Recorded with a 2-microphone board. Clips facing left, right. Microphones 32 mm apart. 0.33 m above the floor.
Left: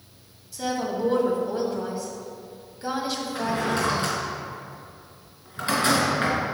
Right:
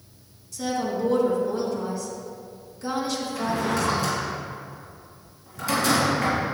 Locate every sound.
0.5 s a woman speaking: 20° left (ahead or behind), 1.9 m
3.4 s a drawer: 40° left (ahead or behind), 2.5 m